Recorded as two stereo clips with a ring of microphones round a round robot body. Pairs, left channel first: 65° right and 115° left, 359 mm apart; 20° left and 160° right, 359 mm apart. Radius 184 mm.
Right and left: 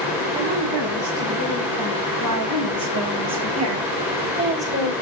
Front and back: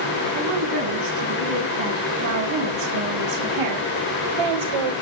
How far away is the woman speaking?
About 7 m.